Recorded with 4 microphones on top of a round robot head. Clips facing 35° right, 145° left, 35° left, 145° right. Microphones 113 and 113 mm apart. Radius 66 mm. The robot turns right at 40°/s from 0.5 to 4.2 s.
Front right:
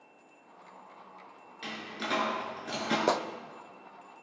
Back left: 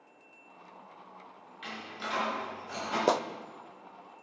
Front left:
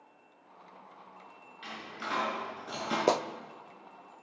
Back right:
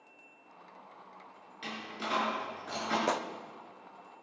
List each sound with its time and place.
1.6 s a door slam: 90° right, 5.5 m; by 3.0 s 40° right, 5.5 m
3.1 s a clap: 65° left, 0.5 m; by 3.2 s 70° left, 0.5 m